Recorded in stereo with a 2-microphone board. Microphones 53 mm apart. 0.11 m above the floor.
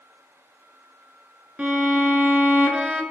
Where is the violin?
25° right (ahead or behind), 0.6 m.